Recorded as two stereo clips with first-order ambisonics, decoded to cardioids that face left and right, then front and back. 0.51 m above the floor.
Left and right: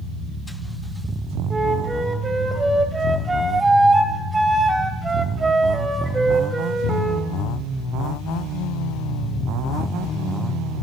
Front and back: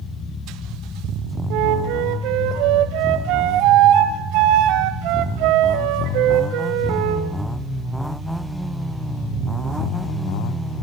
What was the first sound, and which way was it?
A flute, 165° right.